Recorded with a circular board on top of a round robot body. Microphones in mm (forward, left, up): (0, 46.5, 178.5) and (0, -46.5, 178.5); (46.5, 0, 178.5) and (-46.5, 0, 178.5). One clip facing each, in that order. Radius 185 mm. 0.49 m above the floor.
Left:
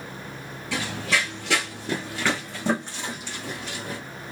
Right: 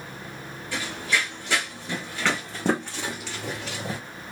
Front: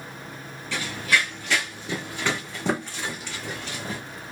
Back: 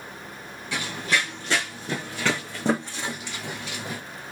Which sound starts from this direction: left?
Running footsteps, at 0.7 s.